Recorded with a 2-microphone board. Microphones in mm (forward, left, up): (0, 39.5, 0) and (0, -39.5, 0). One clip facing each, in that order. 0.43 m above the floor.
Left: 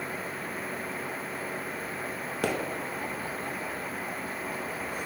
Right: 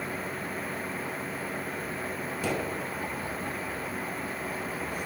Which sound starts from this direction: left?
A pop, at 2.4 s.